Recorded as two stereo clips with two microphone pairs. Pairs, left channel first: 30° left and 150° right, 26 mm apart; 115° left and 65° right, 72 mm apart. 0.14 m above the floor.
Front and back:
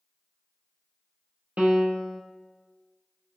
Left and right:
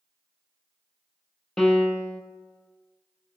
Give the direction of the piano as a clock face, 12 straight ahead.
5 o'clock.